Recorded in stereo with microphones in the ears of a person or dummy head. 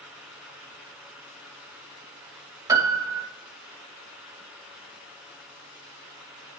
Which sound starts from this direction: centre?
A piano, at 2.7 s.